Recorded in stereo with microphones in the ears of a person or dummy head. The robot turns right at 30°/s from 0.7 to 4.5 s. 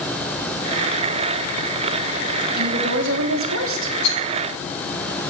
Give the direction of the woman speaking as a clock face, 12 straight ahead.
4 o'clock.